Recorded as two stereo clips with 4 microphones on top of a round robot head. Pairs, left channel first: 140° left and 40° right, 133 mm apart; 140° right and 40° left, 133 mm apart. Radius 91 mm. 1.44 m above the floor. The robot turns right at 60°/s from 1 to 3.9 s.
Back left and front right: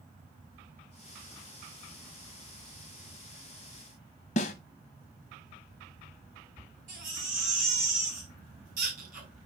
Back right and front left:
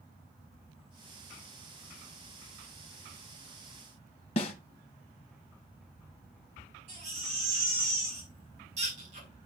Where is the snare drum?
175° left, 0.9 m.